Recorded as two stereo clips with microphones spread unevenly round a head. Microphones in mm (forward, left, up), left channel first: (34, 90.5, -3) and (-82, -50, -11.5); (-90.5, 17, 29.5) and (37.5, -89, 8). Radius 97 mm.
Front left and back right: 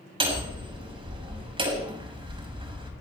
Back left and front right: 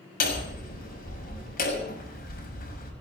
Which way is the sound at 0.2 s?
170° left.